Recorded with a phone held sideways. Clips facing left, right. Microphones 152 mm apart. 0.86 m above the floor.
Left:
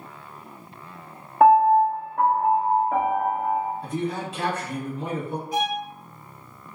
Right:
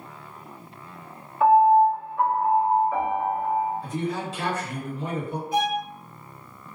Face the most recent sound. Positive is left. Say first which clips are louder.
# right 2 dB
turn(degrees=0)  # may be behind; listen again after turning